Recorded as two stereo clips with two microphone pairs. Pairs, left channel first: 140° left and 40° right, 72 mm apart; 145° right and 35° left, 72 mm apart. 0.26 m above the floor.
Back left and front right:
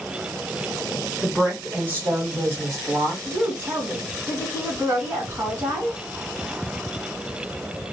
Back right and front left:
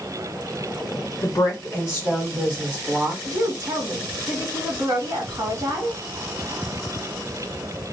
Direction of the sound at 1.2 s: 115° right.